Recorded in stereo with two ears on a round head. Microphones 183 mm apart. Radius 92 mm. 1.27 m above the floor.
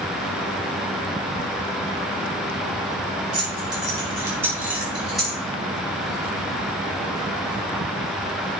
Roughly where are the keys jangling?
Right.